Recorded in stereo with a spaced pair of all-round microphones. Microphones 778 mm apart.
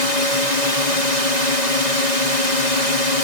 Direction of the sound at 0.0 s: 60° right (ahead or behind).